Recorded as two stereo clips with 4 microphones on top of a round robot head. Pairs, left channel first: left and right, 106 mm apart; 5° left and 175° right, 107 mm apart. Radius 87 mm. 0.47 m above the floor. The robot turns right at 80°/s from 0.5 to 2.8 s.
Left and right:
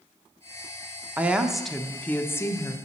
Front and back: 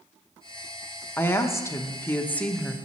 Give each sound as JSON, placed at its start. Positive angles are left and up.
{"t": 1.2, "sound": "a woman speaking", "azimuth_deg": -35, "distance_m": 0.8}